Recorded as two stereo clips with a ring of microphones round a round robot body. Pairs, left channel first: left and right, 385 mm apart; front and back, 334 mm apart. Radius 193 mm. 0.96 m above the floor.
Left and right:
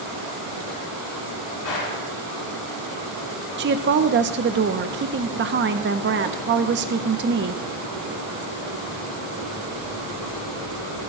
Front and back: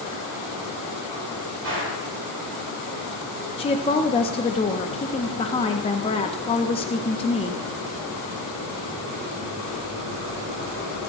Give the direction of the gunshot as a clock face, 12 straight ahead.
8 o'clock.